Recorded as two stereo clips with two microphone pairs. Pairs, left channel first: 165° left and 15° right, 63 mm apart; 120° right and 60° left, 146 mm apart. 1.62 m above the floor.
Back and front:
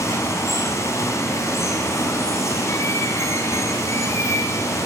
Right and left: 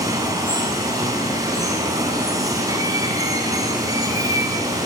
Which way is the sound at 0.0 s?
130° left.